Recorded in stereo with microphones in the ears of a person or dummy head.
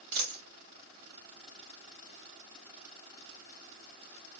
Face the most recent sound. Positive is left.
turn(degrees=-55)  # may be behind; listen again after turning